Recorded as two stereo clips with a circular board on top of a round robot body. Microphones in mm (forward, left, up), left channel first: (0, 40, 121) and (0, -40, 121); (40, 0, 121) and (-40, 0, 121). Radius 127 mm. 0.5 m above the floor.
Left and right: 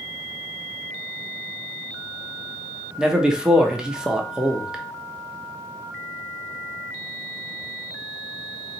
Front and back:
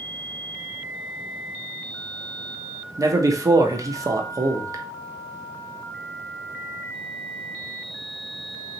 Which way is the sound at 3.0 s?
170° right.